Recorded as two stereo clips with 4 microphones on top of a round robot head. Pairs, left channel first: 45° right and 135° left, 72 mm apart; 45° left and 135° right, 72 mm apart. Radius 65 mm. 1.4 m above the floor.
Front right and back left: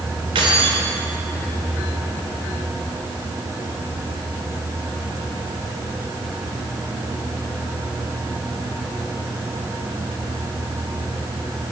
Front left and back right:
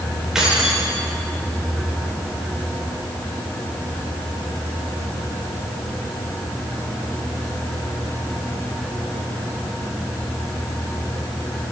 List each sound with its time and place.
0.3 s keys jangling: 145° left, 3 m